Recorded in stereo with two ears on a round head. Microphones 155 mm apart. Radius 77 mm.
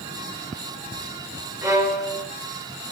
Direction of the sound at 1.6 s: 15° right (ahead or behind).